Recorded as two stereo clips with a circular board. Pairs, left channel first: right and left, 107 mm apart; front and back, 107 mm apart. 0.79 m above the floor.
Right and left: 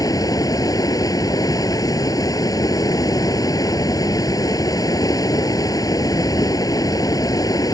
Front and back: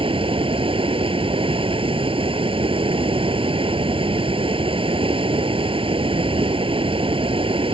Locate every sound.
0.0 s running water: 145° right